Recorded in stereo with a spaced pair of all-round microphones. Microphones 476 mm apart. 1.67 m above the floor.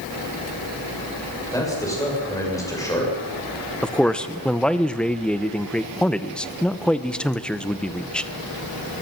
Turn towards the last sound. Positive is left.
turn(degrees=0)  # may be behind; listen again after turning